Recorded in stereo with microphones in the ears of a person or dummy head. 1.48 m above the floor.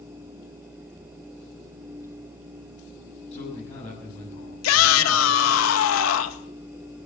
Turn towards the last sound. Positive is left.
turn(degrees=80)